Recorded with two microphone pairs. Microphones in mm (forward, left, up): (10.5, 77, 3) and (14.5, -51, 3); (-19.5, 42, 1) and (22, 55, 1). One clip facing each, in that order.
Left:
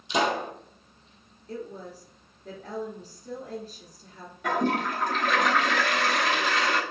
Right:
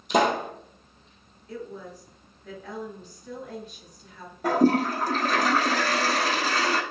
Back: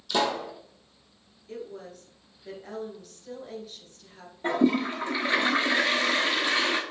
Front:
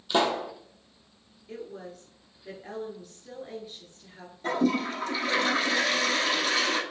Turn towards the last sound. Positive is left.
turn(degrees=-110)